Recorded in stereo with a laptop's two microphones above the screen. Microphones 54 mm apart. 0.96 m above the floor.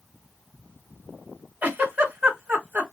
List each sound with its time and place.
1.6 s a giggle: 35° right (ahead or behind), 1.5 m